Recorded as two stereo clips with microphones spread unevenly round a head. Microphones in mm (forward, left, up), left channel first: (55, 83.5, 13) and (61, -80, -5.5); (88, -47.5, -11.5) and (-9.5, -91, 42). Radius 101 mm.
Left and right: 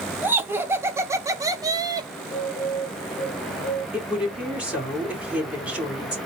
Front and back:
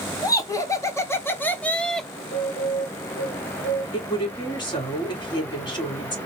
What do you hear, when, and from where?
0.2 s laughter: 15° right, 1.7 m; by 2.1 s 35° right, 1.0 m
2.2 s a bird: 35° left, 2.5 m
3.9 s a woman speaking: 5° right, 3.5 m